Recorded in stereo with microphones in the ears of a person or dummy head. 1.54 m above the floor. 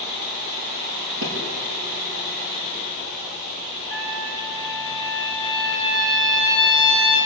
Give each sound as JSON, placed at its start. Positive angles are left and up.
{"t": 1.2, "sound": "a thud", "side_deg": -75, "distance_m": 7.0}
{"t": 3.9, "sound": "a trumpet", "side_deg": -60, "distance_m": 5.0}